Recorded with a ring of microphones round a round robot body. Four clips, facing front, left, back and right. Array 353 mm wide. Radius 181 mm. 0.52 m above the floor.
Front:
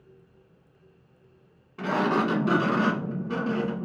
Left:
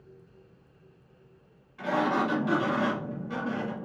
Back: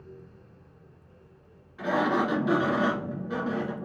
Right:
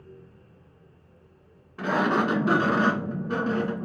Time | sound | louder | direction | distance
1.8 | a sliding door | right 3 dB, front 1 dB | 45° right | 1.5 m